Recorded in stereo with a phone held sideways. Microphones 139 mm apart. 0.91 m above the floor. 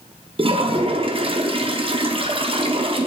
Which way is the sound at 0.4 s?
40° right (ahead or behind).